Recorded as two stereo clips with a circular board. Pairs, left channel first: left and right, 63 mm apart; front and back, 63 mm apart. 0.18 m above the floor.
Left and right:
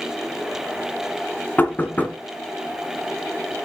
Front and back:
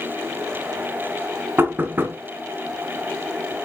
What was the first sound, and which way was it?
Knocking, 140° left.